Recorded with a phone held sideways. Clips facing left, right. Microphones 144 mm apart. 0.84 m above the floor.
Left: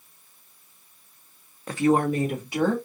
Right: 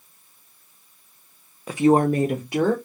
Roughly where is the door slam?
I don't hear a door slam.